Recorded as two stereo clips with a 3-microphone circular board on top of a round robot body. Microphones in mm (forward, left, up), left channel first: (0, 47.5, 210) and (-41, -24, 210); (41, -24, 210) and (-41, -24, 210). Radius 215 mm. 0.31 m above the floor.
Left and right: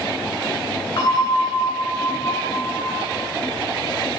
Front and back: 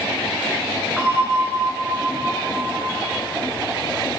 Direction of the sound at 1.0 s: 90° left.